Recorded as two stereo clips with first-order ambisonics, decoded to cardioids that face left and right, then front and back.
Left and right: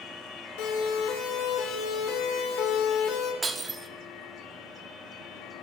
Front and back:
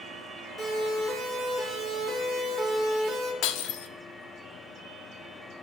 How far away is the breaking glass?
About 0.8 m.